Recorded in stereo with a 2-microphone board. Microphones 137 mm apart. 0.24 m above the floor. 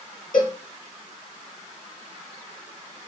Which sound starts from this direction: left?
A cowbell, at 0.3 s.